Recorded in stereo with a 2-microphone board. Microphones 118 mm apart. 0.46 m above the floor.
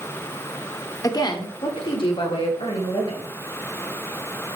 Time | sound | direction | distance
1.0 | a woman speaking | 30° left (ahead or behind) | 1.2 m